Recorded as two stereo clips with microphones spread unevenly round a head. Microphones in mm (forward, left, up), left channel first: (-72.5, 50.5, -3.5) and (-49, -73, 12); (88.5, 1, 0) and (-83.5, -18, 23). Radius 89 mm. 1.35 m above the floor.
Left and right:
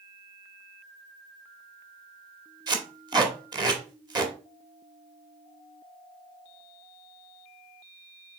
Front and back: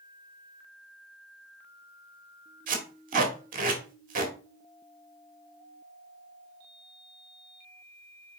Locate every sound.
2.7 s tape being pulled: 135° right, 2 m